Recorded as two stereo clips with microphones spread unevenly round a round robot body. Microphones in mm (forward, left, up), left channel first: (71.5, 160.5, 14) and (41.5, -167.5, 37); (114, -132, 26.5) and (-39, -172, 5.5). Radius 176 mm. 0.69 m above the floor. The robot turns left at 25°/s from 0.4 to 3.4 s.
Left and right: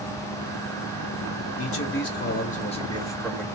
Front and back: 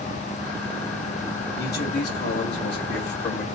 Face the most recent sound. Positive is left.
turn(degrees=0)